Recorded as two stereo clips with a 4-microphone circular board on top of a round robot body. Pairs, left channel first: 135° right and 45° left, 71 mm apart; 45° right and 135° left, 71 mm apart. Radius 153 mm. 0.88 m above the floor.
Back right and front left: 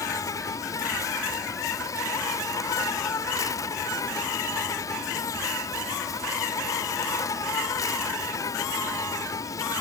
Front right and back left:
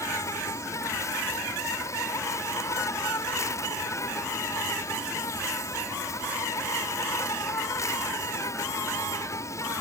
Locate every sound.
0.0 s an insect: 95° right